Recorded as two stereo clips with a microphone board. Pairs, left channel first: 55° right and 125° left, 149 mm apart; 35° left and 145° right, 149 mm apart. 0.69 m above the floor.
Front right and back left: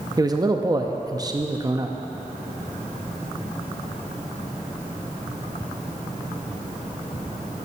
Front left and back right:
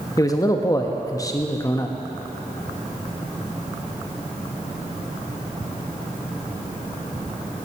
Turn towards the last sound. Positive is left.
turn(degrees=80)